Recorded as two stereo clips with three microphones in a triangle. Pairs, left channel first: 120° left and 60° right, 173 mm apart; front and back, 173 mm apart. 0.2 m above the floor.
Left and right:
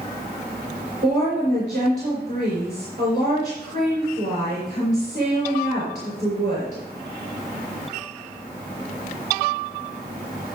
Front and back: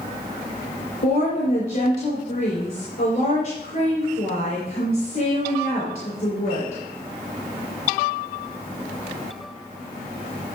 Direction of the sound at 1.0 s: 20° right.